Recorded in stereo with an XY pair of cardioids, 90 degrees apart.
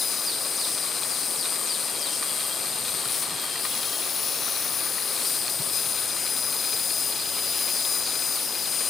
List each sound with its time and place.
0.0 s an insect: 55° left